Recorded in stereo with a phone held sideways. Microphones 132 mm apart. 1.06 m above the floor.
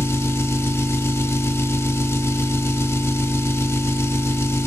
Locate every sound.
0.0 s an engine running: 20° left (ahead or behind), 1.0 m